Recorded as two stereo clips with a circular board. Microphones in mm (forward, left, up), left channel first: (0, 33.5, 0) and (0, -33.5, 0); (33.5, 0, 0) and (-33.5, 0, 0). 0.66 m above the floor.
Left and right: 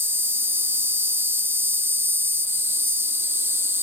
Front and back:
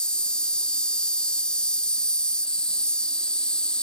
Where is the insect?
70° right.